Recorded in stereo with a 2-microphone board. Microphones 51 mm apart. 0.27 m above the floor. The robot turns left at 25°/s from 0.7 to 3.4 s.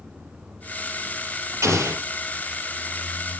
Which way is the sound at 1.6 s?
75° right (ahead or behind).